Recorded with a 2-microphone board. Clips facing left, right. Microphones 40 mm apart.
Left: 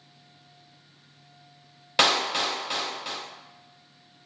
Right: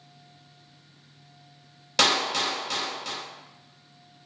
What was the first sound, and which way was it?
A clap, 20° left (ahead or behind).